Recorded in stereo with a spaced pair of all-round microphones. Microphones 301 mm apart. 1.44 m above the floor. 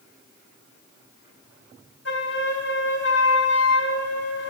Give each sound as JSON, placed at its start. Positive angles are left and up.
{"t": 2.0, "sound": "a flute", "side_deg": 50, "distance_m": 1.8}